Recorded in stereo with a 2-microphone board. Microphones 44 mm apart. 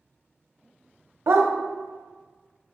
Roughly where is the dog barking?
Right.